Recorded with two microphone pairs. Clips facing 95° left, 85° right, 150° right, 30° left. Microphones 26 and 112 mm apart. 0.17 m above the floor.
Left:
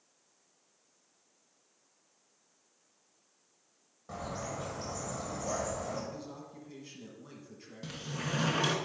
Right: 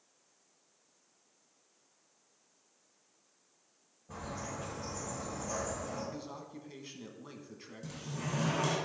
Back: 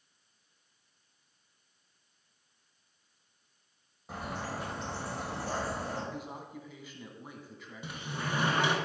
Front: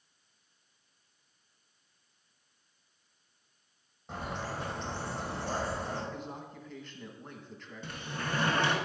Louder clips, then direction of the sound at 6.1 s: Right 1 dB, even; 75° right.